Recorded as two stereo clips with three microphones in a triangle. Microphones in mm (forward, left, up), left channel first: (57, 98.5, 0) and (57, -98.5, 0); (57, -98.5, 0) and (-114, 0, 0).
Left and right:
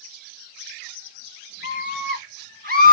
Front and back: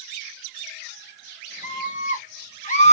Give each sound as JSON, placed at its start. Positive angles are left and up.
{"t": 1.6, "sound": "a scream", "azimuth_deg": -75, "distance_m": 2.5}